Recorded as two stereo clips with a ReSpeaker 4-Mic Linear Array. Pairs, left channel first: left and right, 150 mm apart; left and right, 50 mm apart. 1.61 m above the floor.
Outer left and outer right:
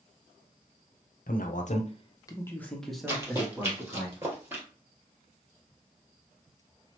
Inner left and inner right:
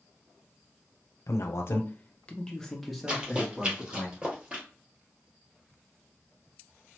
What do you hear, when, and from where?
1.3 s a man speaking: 70° left (ahead or behind), 0.7 m; by 4.1 s 15° right (ahead or behind), 1.4 m
3.1 s running footsteps: 20° right (ahead or behind), 1.9 m; by 4.6 s 15° right (ahead or behind), 1.6 m